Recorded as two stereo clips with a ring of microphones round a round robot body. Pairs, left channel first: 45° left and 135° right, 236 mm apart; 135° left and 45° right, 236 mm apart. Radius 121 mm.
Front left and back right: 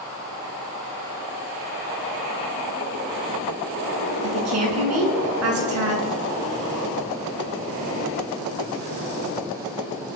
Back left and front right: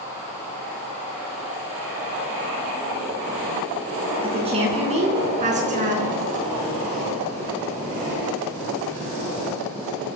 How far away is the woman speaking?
About 6.5 m.